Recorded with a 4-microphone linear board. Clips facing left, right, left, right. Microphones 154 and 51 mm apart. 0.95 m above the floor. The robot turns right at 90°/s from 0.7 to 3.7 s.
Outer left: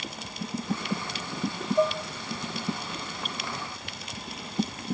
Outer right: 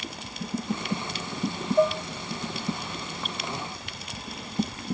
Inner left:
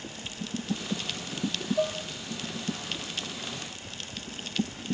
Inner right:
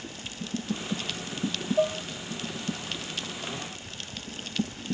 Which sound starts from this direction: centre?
Dishes clattering, at 1.8 s.